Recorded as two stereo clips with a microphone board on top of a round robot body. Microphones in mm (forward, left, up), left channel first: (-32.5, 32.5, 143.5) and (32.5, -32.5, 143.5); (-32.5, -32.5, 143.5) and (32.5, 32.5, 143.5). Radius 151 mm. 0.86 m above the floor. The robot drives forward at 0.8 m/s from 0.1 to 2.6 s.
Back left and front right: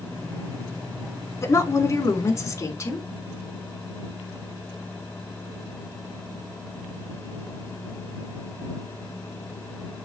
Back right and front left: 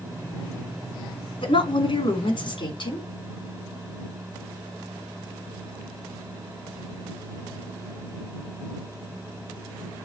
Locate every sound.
1.4 s a woman speaking: 160° right, 3 m; by 3.0 s 165° right, 4 m